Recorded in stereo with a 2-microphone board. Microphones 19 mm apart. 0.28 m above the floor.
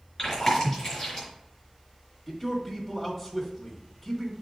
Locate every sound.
0.2 s chewing: 20° left (ahead or behind), 3.5 m
2.3 s a man speaking: 5° right (ahead or behind), 1.6 m